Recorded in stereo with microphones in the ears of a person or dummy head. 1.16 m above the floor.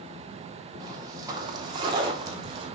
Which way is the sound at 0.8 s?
15° right (ahead or behind).